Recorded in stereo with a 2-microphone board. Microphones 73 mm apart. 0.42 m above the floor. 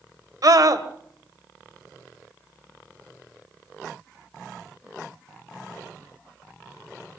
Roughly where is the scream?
Right.